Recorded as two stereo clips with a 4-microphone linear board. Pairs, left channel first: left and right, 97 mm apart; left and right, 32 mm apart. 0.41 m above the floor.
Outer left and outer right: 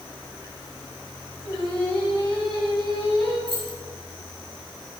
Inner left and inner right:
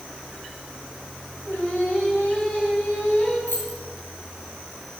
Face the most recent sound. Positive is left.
turn(degrees=65)  # may be behind; listen again after turning